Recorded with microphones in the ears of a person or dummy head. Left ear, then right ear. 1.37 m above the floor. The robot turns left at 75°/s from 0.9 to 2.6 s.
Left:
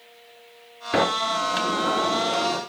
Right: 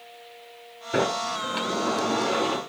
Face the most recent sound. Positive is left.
turn(degrees=-30)